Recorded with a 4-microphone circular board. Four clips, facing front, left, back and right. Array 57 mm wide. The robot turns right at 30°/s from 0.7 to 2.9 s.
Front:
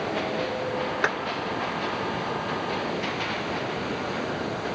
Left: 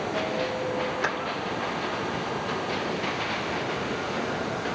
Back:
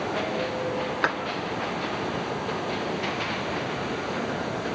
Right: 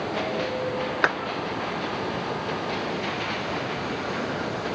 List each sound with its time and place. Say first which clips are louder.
1.0 s a clap: right 8 dB, even; 95° right, 1.5 m; by 1.1 s 90° right, 1.5 m